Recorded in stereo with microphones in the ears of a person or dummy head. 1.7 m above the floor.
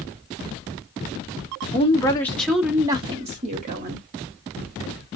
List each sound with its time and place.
1.7 s a woman speaking: 30° left (ahead or behind), 0.9 m; by 4.1 s 50° right (ahead or behind), 1.1 m